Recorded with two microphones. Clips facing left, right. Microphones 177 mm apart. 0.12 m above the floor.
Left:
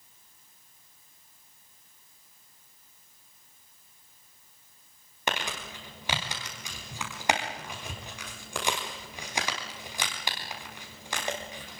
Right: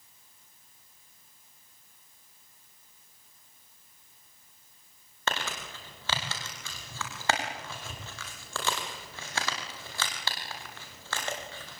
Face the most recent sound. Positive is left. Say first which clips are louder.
# left 1 dB
turn(degrees=15)  # may be behind; listen again after turning